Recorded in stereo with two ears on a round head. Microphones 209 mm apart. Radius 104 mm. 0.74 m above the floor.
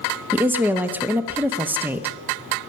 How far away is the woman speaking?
About 0.8 m.